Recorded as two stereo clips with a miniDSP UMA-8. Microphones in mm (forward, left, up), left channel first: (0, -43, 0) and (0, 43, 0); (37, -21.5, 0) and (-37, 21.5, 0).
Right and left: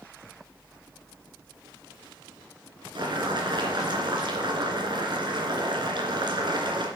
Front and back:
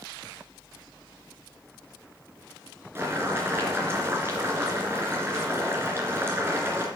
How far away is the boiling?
About 2.5 m.